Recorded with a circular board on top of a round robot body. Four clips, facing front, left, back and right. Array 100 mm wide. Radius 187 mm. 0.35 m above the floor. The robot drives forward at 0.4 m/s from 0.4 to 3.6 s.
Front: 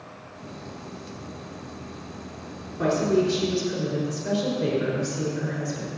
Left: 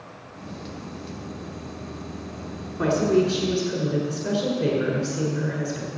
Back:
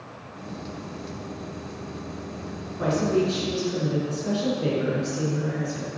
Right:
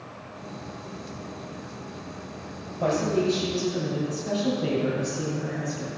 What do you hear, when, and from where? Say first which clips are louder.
2.8 s a woman speaking: left 4 dB, front 1 dB; 90° left, 5.5 m; by 5.9 s 95° left, 5.5 m